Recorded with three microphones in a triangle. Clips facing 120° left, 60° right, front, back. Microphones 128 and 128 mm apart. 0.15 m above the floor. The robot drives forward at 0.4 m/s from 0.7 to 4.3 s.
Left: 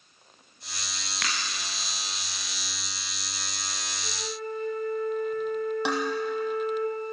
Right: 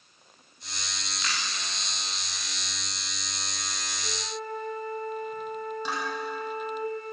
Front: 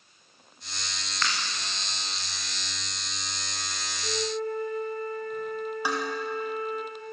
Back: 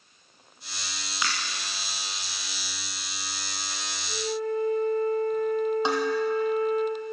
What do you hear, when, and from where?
1.2 s breaking glass: 105° left, 10 m
4.0 s a flute: 25° left, 9.5 m
5.8 s dishes clattering: 115° left, 4 m